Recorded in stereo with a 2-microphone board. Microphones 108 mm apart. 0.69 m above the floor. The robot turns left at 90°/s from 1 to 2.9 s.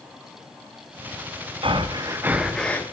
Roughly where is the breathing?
Right.